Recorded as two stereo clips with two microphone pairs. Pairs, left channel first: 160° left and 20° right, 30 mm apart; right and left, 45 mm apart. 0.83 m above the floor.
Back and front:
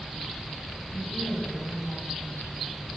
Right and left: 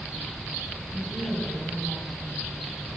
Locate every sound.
0.9 s a woman speaking: 120° left, 4 m